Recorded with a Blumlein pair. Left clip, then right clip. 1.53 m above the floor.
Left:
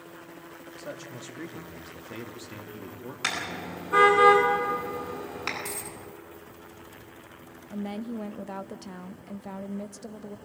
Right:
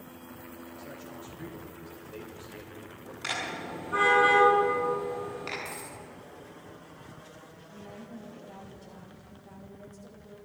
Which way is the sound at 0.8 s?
60° left.